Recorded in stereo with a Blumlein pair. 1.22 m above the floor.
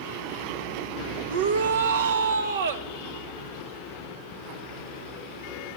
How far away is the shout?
About 1.7 m.